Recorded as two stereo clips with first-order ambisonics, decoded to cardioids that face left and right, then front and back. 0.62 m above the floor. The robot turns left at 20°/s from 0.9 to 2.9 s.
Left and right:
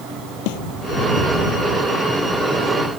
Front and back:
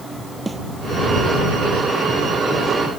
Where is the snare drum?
95° left.